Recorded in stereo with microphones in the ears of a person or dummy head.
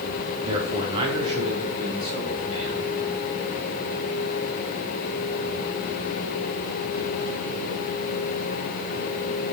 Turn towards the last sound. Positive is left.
turn(degrees=-30)  # may be behind; listen again after turning